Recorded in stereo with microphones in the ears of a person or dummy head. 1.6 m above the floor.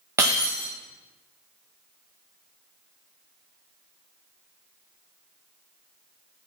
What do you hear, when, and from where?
0.2 s breaking glass: 10° right (ahead or behind), 0.8 m